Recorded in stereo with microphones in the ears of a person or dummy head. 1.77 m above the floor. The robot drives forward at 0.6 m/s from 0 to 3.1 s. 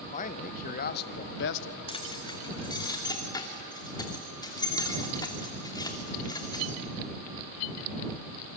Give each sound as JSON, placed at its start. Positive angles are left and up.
{"t": 0.1, "sound": "a man speaking", "side_deg": 40, "distance_m": 1.6}
{"t": 1.9, "sound": "keys jangling", "side_deg": 25, "distance_m": 2.0}